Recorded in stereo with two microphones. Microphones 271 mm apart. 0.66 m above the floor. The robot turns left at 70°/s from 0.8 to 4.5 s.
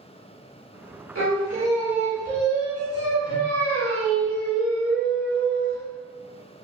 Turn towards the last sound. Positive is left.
turn(degrees=5)